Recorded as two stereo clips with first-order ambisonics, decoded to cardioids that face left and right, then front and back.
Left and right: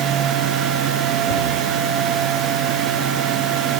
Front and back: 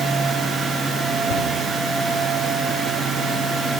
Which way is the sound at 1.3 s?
40° left.